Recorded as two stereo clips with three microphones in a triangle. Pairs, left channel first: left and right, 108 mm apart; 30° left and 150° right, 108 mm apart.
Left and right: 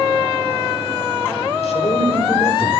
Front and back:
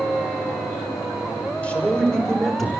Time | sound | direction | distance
1.6 | a man speaking | 110° left | 4.5 m